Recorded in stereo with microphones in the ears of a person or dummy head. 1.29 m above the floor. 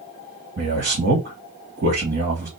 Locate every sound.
0.6 s a man speaking: 50° right (ahead or behind), 1.9 m